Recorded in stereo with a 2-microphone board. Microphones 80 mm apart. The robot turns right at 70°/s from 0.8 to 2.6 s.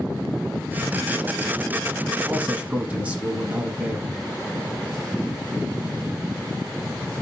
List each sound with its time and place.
2.3 s a man speaking: 20° right (ahead or behind), 1.1 m; by 4.2 s 15° right (ahead or behind), 1.1 m